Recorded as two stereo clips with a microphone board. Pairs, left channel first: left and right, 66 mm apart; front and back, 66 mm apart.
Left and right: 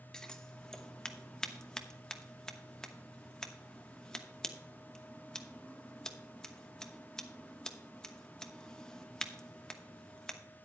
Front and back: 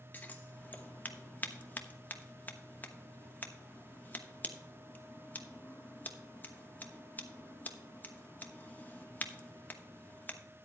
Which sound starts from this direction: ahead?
Scissors, at 0.1 s.